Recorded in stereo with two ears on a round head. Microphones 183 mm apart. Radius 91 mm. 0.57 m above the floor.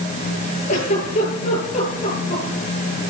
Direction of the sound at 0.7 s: 35° left (ahead or behind).